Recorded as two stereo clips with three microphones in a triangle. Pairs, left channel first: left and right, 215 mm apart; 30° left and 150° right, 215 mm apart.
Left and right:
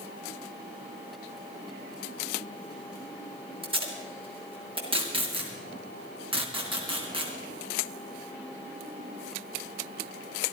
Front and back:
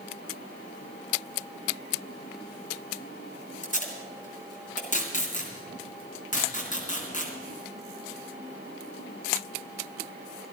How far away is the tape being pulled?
About 3.5 m.